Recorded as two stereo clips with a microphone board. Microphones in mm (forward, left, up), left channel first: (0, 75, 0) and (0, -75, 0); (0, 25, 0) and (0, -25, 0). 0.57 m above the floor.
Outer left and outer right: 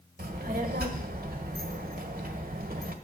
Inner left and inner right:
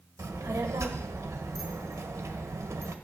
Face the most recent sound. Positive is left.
turn(degrees=-80)